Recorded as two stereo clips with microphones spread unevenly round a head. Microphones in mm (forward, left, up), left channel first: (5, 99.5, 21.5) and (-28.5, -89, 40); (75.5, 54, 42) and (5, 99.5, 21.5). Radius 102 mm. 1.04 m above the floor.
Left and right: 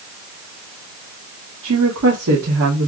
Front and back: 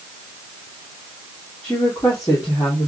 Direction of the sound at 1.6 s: 115° right.